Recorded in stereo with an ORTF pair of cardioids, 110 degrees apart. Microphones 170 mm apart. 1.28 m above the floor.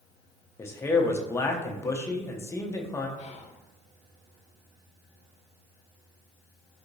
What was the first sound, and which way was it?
A man speaking, 15° left.